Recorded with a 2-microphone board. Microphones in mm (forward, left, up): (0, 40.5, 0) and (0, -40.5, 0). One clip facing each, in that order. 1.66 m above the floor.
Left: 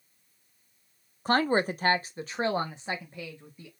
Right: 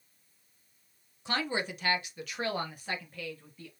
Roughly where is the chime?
No chime in this recording.